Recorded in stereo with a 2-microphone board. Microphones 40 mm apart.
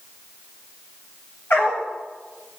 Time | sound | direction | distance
1.5 | a dog barking | 60° left (ahead or behind) | 9 m